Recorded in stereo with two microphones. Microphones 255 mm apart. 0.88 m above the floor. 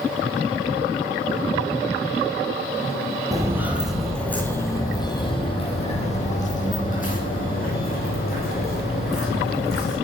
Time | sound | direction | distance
3.3 | footsteps | 15° right (ahead or behind) | 1.4 m